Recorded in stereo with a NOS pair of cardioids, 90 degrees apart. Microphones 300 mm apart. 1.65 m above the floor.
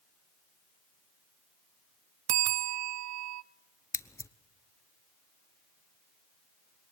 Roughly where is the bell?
Ahead right.